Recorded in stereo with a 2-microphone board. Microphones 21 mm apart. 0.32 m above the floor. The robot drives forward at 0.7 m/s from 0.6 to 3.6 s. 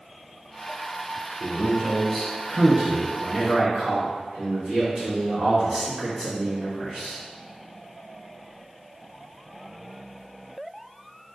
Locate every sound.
1.4 s a man speaking: 15° right (ahead or behind), 0.9 m; by 7.2 s 5° right (ahead or behind), 2.0 m